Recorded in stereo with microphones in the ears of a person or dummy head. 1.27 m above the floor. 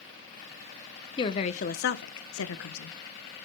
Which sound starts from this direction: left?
A woman speaking, at 1.2 s.